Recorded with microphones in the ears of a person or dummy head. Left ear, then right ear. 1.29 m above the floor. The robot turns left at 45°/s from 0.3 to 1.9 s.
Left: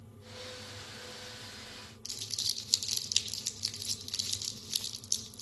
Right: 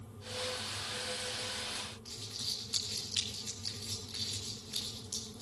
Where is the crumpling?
80° left, 2.0 m.